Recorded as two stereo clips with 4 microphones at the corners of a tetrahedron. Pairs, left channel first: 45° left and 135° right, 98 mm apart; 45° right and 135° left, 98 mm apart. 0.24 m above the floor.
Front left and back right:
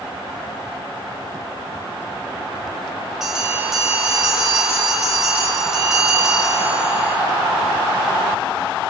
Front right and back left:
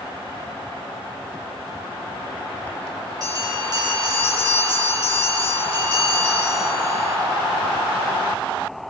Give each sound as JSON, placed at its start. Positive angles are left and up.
{"t": 3.2, "sound": "a bell", "azimuth_deg": 140, "distance_m": 2.0}